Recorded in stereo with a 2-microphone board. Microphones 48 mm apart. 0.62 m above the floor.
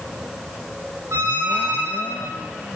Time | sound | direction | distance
1.1 | a squeak | 55° right (ahead or behind) | 4 m